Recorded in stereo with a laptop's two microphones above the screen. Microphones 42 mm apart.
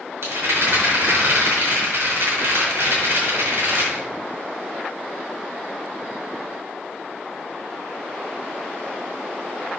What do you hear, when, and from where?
0.2 s a rattle: 75° right (ahead or behind), 3.5 m